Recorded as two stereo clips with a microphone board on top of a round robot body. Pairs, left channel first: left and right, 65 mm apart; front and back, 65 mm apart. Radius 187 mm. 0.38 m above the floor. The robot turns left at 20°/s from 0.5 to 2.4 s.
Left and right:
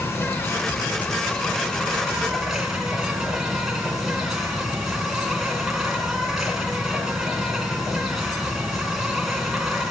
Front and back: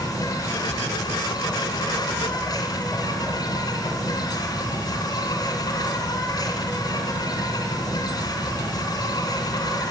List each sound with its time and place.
0.0 s an insect: 35° left, 3 m; by 9.9 s 5° right, 3 m